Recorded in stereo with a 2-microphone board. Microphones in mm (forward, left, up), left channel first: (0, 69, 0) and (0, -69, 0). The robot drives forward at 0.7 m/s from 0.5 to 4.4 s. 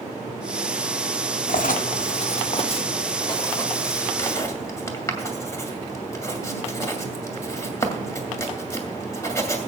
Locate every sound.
1.5 s writing: 85° left, 0.8 m; by 9.7 s 20° left (ahead or behind), 2 m